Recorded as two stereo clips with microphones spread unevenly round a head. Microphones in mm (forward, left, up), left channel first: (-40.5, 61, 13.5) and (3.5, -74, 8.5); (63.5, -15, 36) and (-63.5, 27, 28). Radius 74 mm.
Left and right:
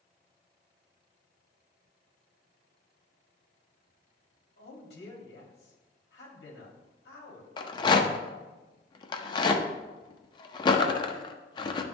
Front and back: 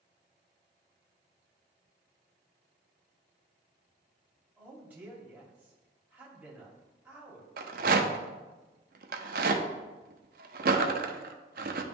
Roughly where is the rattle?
Behind.